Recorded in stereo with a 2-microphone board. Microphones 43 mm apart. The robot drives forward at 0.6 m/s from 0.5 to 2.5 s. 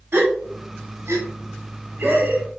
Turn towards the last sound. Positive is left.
turn(degrees=-45)  # may be behind; listen again after turning